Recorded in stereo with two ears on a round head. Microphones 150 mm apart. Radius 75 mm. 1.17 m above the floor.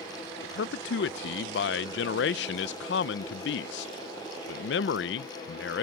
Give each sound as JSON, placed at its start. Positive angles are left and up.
{"t": 0.4, "sound": "a man speaking", "side_deg": 65}